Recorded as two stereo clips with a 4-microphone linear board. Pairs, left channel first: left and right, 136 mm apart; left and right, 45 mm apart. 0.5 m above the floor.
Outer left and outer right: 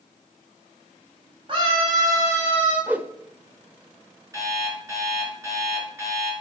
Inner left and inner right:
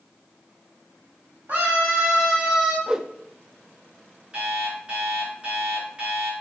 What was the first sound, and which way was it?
A scream, 40° right (ahead or behind).